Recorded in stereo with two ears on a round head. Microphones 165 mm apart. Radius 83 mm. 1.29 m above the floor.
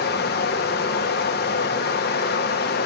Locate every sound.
0.0 s running water: 55° left (ahead or behind), 1.1 m